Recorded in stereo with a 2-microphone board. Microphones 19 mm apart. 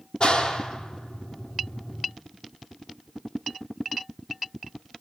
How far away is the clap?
About 3.5 m.